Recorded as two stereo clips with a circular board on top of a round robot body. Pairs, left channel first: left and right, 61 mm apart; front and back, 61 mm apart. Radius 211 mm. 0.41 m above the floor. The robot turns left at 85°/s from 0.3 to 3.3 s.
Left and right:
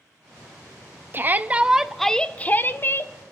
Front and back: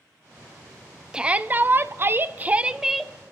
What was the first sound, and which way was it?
A shout, 110° right.